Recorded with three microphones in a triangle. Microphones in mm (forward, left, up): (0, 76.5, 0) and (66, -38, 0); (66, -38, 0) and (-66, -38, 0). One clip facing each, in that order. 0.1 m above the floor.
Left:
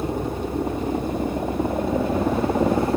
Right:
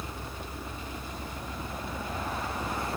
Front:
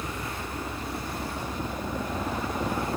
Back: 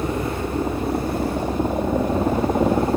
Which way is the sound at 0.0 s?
145° left.